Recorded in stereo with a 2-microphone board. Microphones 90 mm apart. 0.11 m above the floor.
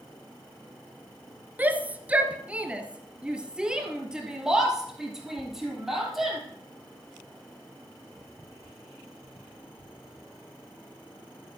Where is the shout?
20° right (ahead or behind), 1.5 m; by 6.4 s 5° right (ahead or behind), 3.5 m.